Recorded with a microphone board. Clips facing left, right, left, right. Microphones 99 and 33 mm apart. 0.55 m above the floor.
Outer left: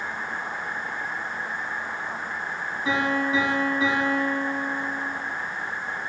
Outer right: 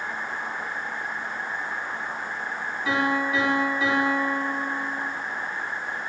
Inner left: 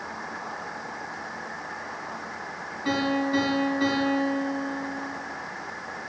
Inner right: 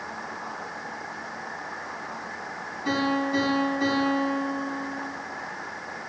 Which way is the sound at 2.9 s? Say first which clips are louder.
Even, even; 30° left (ahead or behind).